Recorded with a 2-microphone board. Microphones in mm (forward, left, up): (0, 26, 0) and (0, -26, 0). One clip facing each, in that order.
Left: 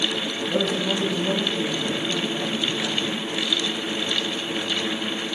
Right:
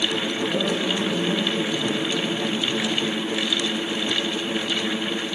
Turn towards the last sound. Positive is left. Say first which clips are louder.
# left 2 dB
turn(degrees=50)  # may be behind; listen again after turning